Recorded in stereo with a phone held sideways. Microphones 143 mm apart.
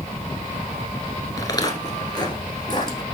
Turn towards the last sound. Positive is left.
turn(degrees=30)  # may be behind; listen again after turning